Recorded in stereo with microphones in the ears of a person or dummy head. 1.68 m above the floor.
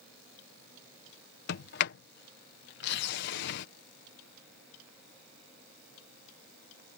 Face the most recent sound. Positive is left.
turn(degrees=70)  # may be behind; listen again after turning